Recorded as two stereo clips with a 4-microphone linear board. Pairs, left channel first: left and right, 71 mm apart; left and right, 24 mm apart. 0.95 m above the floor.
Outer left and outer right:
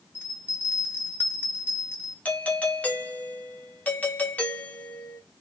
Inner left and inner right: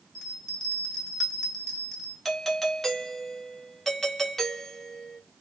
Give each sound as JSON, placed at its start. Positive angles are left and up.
{"t": 0.1, "sound": "a bell", "side_deg": 25, "distance_m": 1.0}
{"t": 2.2, "sound": "a doorbell", "side_deg": 25, "distance_m": 0.7}